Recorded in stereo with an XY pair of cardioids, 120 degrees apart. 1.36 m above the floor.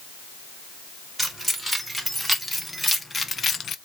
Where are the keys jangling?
5° right, 3 m; by 3.8 s 50° left, 0.6 m.